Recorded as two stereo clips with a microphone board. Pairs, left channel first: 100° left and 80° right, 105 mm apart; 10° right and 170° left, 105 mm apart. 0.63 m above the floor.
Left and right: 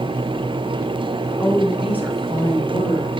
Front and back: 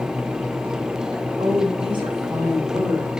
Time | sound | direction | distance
1.4 | a woman speaking | 175° right | 2 m